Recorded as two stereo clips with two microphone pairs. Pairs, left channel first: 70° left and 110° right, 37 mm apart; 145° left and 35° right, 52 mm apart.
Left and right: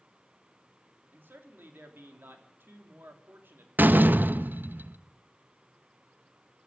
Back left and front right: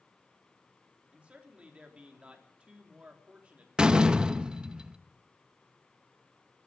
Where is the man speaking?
100° right, 3 m.